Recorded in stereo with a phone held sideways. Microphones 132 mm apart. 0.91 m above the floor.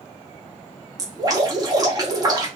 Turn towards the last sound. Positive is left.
turn(degrees=-30)  # may be behind; listen again after turning